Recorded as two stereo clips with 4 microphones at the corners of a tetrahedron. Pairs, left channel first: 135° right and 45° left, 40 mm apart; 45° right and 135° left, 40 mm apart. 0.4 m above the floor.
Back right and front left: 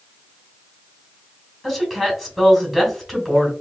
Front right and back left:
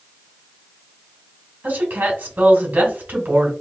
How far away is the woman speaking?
About 2 m.